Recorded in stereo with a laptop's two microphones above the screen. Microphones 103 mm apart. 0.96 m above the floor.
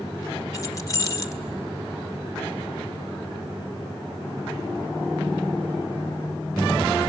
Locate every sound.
0.5 s keys jangling: 35° left (ahead or behind), 1.9 m